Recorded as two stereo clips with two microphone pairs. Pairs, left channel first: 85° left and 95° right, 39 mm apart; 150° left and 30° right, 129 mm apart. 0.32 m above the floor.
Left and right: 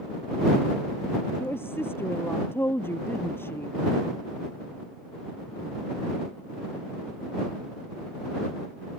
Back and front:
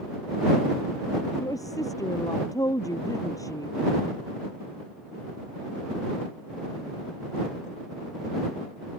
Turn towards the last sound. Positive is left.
turn(degrees=90)